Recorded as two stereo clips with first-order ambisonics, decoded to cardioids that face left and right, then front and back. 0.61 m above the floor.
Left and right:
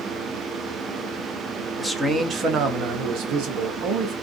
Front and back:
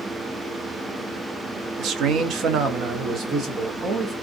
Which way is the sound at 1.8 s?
Straight behind.